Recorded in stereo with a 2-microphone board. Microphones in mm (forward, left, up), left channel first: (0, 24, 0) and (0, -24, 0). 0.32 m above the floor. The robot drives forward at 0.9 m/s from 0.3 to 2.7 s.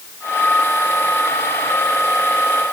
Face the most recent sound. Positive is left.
No sound to turn to.